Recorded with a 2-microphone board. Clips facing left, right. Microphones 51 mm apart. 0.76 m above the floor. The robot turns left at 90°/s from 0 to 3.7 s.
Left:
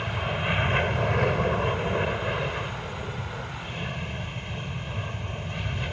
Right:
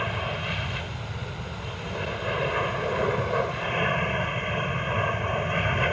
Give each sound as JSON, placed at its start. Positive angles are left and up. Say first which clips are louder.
{"t": 0.0, "sound": "an aircraft", "louder": "even", "azimuth_deg": -155}